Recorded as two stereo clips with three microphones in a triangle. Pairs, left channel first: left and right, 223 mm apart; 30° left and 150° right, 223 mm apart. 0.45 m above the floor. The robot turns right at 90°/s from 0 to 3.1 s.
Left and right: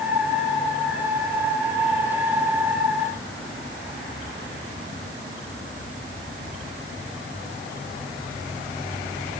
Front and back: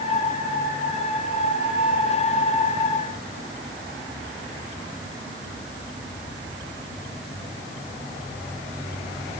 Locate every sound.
Only background noise.